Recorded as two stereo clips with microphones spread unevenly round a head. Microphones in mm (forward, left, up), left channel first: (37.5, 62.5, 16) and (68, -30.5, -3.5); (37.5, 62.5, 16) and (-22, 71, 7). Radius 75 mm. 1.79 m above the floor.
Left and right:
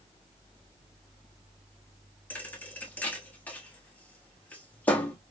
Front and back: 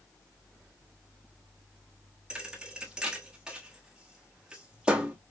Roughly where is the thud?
Left.